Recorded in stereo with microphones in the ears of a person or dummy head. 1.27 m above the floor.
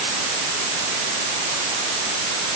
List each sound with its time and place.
Only background noise.